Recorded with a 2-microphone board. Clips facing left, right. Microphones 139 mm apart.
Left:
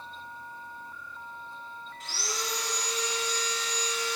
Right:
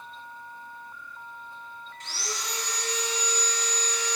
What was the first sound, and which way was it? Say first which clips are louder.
Sawing: left 1 dB; 5° left (ahead or behind).